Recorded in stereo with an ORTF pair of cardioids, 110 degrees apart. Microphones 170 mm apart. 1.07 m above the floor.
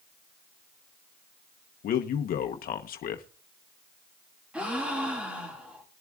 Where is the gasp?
5° right, 2 m.